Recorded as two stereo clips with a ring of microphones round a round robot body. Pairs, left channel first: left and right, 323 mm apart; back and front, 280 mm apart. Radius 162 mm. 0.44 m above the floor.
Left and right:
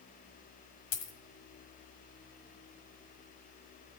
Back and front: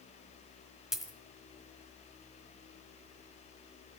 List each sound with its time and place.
0.9 s a dropped coin: 90° left, 1.4 m